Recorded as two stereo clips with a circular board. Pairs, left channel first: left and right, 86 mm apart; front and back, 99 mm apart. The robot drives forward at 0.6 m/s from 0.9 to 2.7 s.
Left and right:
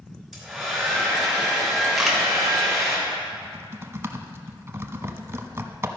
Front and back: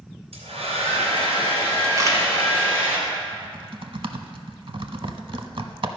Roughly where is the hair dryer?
Behind.